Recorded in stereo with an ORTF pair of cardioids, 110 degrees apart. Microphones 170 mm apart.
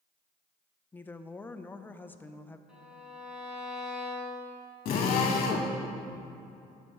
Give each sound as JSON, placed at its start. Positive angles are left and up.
{"t": 0.9, "sound": "a woman speaking", "azimuth_deg": 10, "distance_m": 0.5}
{"t": 2.7, "sound": "a violin", "azimuth_deg": -5, "distance_m": 2.5}
{"t": 4.8, "sound": "a drill", "azimuth_deg": 60, "distance_m": 1.8}